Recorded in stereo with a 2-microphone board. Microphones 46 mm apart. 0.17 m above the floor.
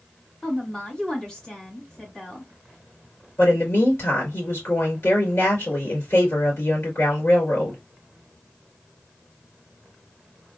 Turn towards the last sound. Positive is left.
turn(degrees=55)  # may be behind; listen again after turning